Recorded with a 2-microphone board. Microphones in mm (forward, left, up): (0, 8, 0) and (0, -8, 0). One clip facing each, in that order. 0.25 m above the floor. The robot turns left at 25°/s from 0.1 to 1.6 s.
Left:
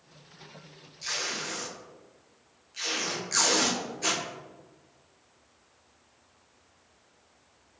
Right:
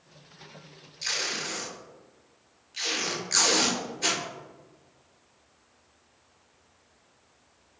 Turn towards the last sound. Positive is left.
turn(degrees=-20)  # may be behind; listen again after turning